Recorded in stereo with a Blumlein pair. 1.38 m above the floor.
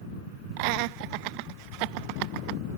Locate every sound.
0.6 s laughter: 45° right